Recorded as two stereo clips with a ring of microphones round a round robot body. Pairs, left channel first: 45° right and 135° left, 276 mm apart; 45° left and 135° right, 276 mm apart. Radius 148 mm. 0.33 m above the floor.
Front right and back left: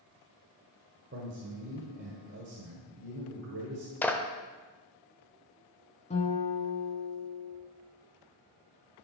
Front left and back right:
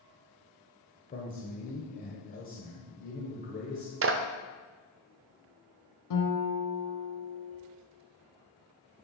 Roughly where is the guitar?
Ahead left.